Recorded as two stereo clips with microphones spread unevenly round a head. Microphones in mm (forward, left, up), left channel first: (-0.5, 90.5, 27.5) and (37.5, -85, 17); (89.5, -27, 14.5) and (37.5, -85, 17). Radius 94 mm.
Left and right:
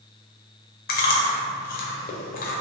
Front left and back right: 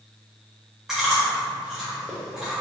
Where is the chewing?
145° left, 0.6 m.